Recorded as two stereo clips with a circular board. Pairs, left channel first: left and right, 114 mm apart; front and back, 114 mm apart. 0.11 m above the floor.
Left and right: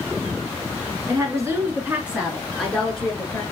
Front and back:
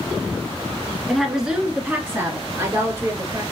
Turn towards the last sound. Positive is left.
turn(degrees=150)